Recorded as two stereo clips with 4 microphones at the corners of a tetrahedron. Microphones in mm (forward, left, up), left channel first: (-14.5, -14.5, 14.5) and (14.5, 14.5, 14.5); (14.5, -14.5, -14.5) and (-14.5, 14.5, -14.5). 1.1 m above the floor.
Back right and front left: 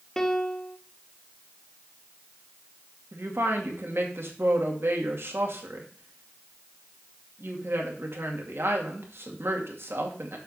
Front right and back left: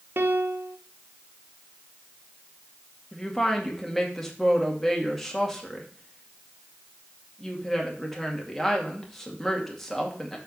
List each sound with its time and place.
0.2 s a piano: 150° left, 0.8 m
3.1 s a woman speaking: 40° left, 2 m